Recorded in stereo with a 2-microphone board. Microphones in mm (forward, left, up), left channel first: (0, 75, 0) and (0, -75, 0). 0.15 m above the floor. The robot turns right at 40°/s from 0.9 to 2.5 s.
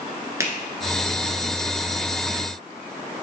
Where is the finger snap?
20° right (ahead or behind), 1.4 m.